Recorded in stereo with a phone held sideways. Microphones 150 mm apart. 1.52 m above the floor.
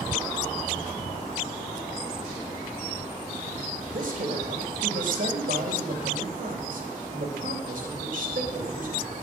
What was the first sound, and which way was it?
A man speaking, 60° right (ahead or behind).